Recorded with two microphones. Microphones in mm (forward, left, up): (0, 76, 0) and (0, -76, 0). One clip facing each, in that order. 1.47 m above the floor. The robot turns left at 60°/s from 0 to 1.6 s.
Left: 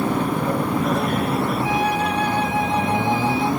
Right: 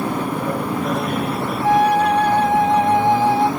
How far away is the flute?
About 0.6 m.